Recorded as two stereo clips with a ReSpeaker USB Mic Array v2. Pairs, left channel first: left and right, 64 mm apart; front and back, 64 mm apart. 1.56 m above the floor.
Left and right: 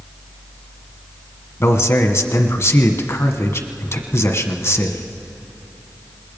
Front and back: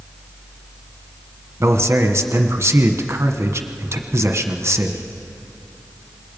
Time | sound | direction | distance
1.6 | a man speaking | 130° left | 1.3 m